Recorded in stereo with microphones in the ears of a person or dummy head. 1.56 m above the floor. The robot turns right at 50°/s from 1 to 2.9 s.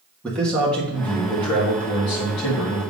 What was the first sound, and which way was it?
A man speaking, 5° left.